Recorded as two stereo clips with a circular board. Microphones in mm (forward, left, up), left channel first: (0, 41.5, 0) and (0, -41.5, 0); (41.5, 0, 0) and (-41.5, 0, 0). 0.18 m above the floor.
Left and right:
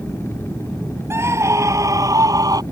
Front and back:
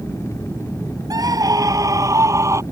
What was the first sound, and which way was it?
A scream, 145° right.